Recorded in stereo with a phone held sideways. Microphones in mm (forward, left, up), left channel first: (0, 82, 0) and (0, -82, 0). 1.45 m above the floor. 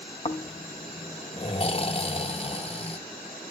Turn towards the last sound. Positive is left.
turn(degrees=35)  # may be behind; listen again after turning